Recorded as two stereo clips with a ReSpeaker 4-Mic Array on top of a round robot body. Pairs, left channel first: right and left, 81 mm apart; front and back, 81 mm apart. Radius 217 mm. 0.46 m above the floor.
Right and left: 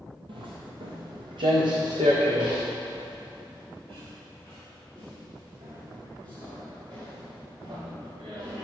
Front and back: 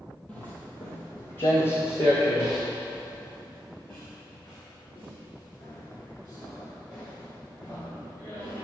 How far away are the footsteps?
About 1.0 m.